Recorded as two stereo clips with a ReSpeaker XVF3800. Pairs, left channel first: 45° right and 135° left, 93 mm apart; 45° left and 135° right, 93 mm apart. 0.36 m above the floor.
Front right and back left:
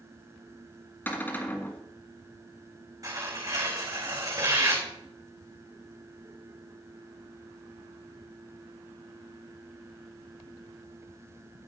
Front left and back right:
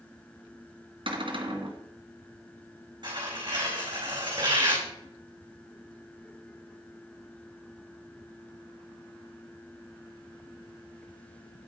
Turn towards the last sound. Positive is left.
turn(degrees=-175)